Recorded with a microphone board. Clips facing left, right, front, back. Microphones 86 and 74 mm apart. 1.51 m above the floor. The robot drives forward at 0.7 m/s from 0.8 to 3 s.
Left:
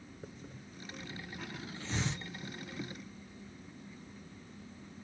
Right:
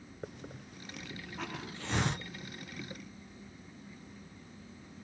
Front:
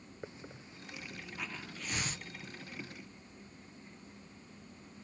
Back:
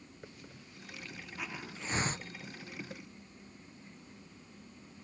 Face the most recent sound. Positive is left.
turn(degrees=-145)